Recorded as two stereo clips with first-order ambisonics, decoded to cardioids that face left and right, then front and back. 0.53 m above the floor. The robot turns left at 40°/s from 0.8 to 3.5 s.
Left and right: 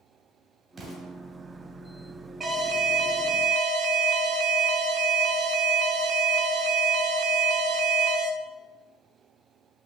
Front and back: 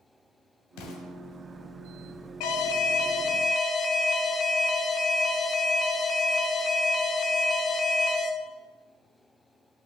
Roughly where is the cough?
I don't hear a cough.